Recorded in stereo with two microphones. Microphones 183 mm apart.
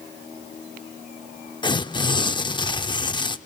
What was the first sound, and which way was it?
Tearing paper, 25° left (ahead or behind).